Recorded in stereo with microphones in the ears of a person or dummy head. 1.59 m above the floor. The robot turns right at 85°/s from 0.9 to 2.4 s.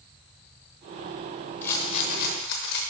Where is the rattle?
10° left, 0.8 m; by 2.8 s 80° left, 0.8 m.